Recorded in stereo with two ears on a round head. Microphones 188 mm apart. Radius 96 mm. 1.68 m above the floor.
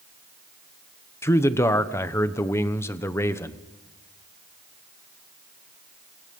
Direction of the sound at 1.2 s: 15° left (ahead or behind).